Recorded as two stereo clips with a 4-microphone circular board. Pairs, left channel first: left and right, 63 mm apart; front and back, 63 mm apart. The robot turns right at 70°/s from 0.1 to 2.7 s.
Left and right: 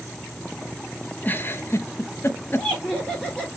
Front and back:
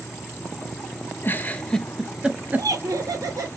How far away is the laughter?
About 2.5 m.